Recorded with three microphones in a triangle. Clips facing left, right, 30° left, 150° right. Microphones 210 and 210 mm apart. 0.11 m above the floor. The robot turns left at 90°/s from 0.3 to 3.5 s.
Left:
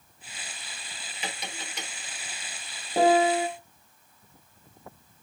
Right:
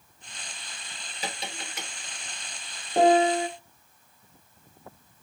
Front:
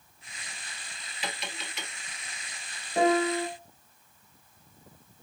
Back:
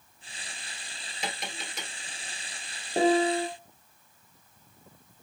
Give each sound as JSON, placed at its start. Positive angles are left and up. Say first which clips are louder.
{"t": 1.2, "sound": "tapping", "louder": "right 2 dB, back 1 dB", "azimuth_deg": -125, "distance_m": 1.2}
{"t": 3.0, "sound": "a piano", "louder": "right 1 dB, back 1 dB", "azimuth_deg": 180, "distance_m": 1.1}